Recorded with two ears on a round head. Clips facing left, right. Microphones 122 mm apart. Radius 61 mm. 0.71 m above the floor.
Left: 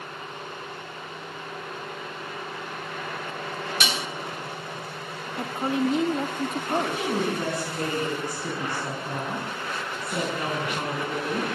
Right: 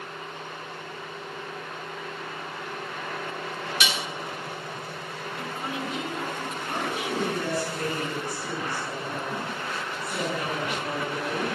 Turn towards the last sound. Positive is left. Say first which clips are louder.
# left 3 dB
turn(degrees=20)  # may be behind; listen again after turning